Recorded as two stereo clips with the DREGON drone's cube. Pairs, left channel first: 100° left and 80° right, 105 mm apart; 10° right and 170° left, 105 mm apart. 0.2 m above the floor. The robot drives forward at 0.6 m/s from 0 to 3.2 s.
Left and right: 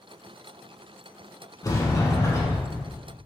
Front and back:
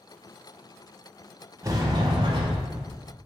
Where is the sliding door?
130° left, 0.7 m; by 2.8 s 160° left, 1.2 m.